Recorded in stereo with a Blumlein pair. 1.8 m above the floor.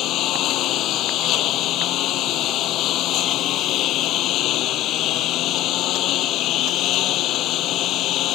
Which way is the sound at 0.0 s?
35° left.